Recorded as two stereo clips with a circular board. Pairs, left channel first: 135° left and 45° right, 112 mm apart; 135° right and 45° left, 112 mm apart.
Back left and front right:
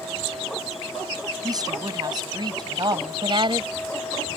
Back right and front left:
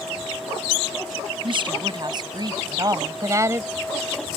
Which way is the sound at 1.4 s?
5° left.